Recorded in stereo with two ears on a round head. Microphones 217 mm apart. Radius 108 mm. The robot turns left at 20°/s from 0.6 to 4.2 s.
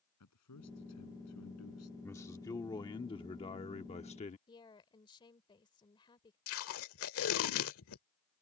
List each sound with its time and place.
0.2 s a man speaking: 80° left; by 1.9 s 65° left (ahead or behind)
2.0 s a man speaking: 155° left; by 4.4 s 115° left
4.5 s a woman speaking: 20° left (ahead or behind)
6.5 s tape being pulled: 65° left (ahead or behind)